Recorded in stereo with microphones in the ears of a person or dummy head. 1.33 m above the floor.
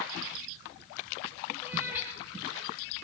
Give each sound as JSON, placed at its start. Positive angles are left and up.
{"t": 1.6, "sound": "a cat meowing", "side_deg": -10, "distance_m": 6.5}